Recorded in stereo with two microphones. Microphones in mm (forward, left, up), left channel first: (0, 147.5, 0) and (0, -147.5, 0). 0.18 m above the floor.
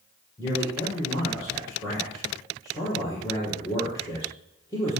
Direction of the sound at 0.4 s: 10° left (ahead or behind).